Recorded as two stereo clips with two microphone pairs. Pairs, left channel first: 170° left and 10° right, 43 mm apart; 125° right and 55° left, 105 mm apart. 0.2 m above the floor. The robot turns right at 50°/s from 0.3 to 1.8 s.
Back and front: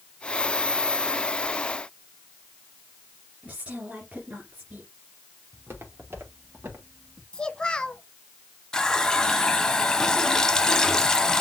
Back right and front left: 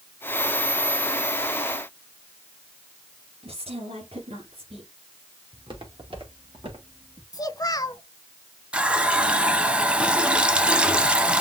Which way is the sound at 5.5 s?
15° left.